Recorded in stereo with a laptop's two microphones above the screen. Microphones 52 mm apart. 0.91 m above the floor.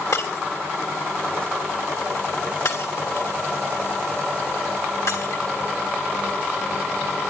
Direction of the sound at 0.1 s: 80° left.